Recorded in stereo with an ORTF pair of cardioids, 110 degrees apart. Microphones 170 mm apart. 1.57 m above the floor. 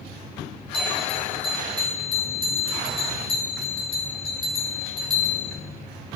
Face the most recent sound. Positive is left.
turn(degrees=30)